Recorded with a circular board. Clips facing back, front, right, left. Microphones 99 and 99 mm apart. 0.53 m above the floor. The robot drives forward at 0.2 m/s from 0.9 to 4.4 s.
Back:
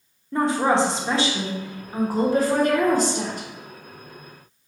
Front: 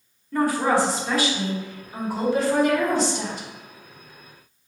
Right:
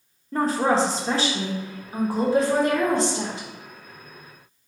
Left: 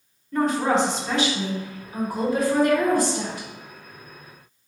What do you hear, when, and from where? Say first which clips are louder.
0.3 s a woman speaking: back 1 dB, even; 125° right, 0.8 m; by 3.5 s 150° right, 1.1 m